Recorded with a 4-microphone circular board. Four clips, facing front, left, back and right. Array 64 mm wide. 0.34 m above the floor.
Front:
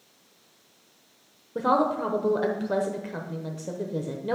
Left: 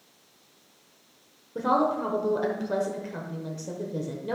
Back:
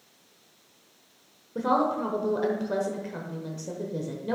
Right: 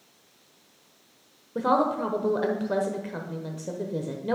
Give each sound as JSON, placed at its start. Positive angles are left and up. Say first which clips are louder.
{"t": 1.6, "sound": "a woman speaking", "louder": "right 1 dB, front 2 dB", "azimuth_deg": -45, "distance_m": 0.9}